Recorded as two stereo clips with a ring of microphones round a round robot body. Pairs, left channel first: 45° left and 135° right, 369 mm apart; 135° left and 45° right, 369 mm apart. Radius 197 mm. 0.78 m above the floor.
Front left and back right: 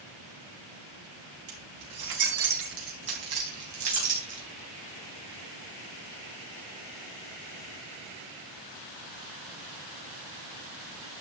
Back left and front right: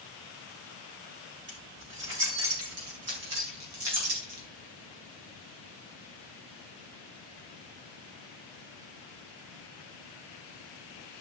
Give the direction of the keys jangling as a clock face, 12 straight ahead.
4 o'clock.